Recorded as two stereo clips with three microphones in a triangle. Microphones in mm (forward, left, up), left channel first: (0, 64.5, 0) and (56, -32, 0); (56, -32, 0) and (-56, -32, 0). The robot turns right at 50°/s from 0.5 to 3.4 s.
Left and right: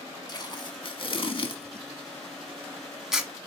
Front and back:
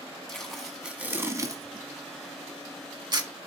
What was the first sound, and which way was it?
Tape being pulled, 85° left.